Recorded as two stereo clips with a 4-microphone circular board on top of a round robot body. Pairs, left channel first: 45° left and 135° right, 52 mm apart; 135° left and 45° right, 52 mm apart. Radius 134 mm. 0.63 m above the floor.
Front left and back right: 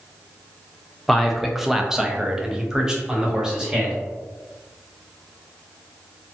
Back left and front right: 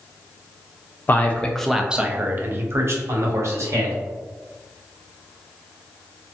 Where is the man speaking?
130° left, 0.6 m; by 4.0 s 60° right, 1.4 m.